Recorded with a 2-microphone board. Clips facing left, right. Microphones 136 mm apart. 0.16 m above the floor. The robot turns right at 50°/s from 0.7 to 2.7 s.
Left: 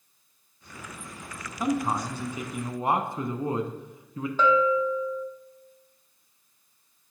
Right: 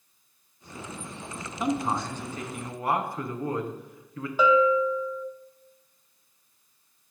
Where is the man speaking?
10° right, 1.1 m; by 4.3 s 45° left, 1.1 m.